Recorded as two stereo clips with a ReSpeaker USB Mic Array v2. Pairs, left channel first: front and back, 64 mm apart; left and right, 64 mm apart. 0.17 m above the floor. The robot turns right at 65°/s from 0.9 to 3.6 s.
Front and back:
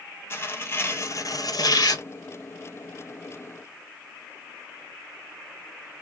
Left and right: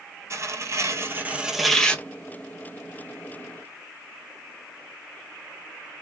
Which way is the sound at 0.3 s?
50° right.